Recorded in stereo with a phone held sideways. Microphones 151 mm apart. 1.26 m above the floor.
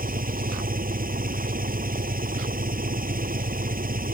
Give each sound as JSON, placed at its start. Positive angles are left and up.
{"t": 0.0, "sound": "an engine running", "side_deg": -70}